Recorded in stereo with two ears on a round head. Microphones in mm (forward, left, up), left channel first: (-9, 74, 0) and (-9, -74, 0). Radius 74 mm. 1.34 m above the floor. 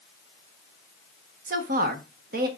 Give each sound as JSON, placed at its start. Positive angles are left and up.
{"t": 1.5, "sound": "a woman speaking", "side_deg": -60, "distance_m": 1.4}